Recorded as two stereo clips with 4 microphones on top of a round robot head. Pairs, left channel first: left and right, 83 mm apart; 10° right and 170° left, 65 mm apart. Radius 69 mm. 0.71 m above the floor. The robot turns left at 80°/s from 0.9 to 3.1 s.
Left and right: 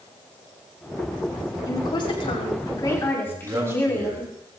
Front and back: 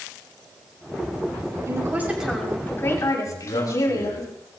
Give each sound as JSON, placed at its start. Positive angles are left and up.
{"t": 1.7, "sound": "a woman speaking", "azimuth_deg": 135, "distance_m": 6.0}
{"t": 3.2, "sound": "a man speaking", "azimuth_deg": -35, "distance_m": 4.5}